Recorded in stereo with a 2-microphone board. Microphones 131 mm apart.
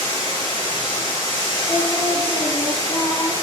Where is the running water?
30° left (ahead or behind), 3 m.